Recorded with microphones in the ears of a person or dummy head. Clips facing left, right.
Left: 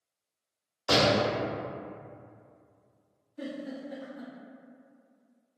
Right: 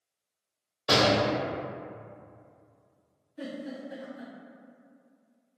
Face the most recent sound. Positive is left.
turn(degrees=-25)  # may be behind; listen again after turning